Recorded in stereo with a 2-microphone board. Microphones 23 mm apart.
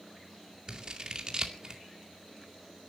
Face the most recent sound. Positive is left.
turn(degrees=-30)  # may be behind; listen again after turning